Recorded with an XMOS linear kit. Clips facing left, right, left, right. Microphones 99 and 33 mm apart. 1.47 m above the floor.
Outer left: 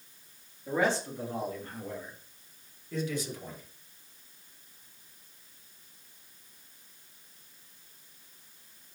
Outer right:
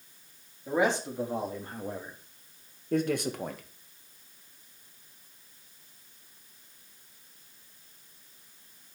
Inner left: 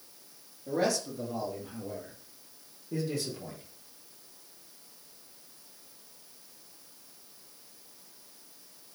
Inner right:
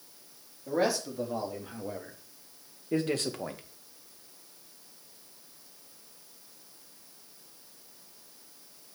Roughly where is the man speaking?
Centre.